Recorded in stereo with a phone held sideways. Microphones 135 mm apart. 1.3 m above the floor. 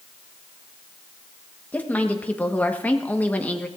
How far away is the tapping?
No tapping in this recording.